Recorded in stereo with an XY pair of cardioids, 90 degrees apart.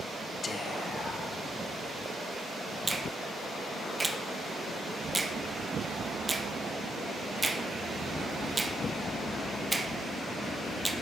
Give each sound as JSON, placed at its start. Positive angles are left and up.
{"t": 0.4, "sound": "whispering", "azimuth_deg": 45, "distance_m": 0.7}
{"t": 2.9, "sound": "a finger snap", "azimuth_deg": -20, "distance_m": 0.6}